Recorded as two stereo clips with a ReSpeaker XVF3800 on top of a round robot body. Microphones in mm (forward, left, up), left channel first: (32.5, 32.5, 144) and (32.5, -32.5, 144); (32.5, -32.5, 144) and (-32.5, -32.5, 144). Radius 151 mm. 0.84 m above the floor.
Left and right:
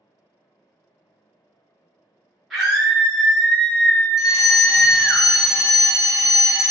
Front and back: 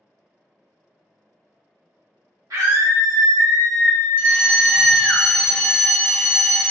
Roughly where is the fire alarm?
Ahead.